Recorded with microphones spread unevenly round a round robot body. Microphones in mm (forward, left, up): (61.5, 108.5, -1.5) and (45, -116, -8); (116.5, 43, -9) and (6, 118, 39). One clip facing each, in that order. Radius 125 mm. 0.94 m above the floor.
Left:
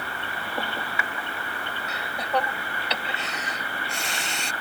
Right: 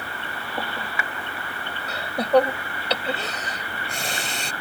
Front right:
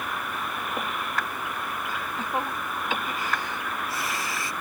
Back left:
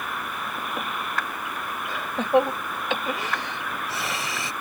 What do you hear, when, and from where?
1.9 s laughter: 155° right